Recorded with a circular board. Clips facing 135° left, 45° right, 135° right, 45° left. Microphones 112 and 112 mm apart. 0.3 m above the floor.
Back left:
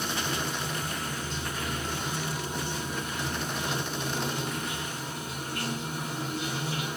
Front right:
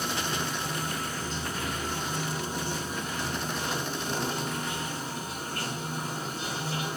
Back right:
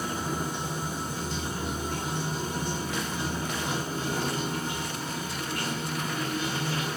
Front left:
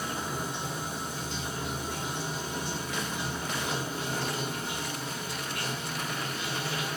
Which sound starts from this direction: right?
Running water, at 0.0 s.